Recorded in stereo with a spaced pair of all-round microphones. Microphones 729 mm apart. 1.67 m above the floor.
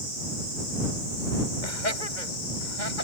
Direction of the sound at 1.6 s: 85° left.